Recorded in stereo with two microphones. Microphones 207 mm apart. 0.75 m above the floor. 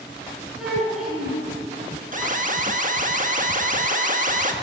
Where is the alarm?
40° right (ahead or behind), 1.3 m.